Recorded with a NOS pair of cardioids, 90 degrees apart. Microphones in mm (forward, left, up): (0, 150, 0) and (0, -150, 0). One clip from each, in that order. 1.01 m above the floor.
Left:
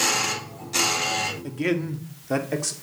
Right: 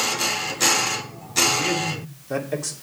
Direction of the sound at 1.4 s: 45° left.